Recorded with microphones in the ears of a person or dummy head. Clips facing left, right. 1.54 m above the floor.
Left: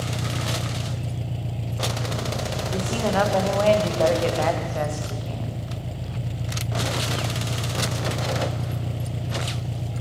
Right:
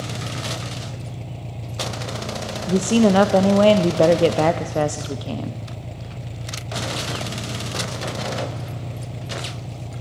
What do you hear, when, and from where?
0.0 s an engine running: 5° left (ahead or behind), 0.8 m
2.7 s a woman speaking: 50° right (ahead or behind), 0.8 m